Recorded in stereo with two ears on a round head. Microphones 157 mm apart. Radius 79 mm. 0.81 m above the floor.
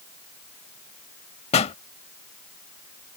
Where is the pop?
35° left (ahead or behind).